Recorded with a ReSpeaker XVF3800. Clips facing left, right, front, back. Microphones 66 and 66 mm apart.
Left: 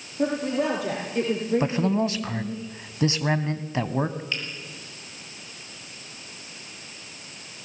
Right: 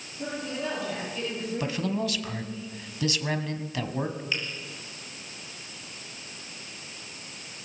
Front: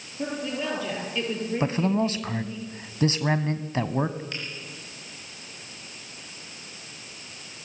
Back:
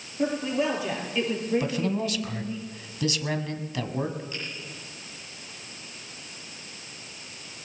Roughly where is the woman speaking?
Left.